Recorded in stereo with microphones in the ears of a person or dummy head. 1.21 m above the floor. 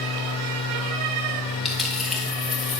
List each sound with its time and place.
0.0 s a machine running: 75° right (ahead or behind), 3 m
1.6 s a dropped coin: centre (ahead or behind), 0.9 m